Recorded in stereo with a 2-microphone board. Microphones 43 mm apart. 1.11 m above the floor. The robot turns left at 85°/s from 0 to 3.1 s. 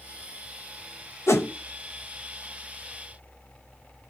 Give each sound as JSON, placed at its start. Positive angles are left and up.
{"t": 1.3, "sound": "a whoosh", "side_deg": 80, "distance_m": 0.8}